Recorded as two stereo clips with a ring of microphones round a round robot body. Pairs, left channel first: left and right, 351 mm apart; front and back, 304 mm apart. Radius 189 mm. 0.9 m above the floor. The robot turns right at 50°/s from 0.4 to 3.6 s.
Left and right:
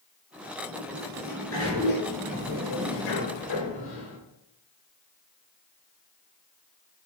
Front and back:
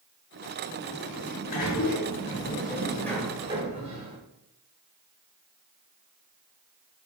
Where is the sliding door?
35° right, 5 m; by 4.2 s 110° left, 5 m.